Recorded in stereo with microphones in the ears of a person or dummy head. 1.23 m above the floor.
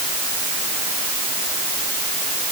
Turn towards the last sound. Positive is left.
No sound to turn to.